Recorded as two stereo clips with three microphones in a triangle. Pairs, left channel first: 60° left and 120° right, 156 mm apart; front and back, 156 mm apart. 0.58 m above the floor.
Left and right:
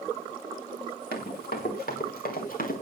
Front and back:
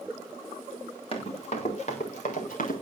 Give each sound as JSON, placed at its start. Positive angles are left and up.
{"t": 1.1, "sound": "running footsteps", "azimuth_deg": 55, "distance_m": 6.0}